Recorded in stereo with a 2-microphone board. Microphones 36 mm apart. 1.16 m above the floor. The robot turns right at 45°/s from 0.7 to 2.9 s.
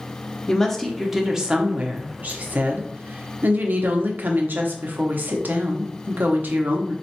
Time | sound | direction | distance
0.5 | a woman speaking | 170° left | 0.8 m